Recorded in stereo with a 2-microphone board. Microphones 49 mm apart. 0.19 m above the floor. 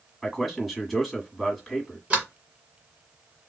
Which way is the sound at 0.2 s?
Centre (ahead or behind).